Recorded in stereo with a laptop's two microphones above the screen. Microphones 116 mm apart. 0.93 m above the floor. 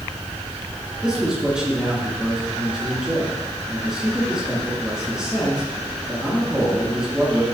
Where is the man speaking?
5° right (ahead or behind), 1.6 m.